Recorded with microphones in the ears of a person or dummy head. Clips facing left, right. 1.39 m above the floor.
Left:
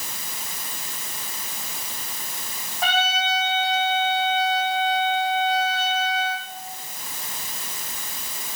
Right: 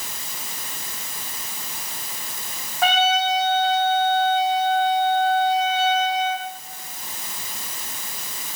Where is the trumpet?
45° right (ahead or behind), 1.4 m.